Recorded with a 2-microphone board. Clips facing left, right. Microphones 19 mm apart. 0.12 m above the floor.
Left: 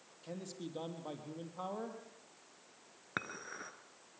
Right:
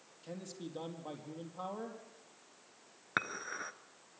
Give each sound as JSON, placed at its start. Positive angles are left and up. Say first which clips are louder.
{"t": 0.2, "sound": "a man speaking", "louder": "even", "side_deg": 5, "distance_m": 3.5}
{"t": 3.2, "sound": "dishes clattering", "louder": "right 5 dB", "side_deg": -25, "distance_m": 1.1}